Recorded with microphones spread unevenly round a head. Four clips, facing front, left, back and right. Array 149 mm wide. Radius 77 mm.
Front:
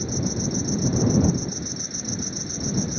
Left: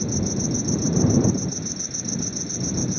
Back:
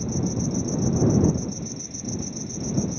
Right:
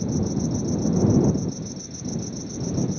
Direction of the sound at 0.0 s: 40° left.